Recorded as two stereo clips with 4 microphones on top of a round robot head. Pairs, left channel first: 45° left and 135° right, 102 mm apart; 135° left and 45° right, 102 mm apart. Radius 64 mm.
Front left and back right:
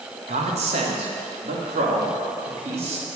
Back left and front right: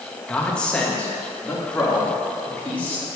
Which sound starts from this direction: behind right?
A man speaking, at 0.3 s.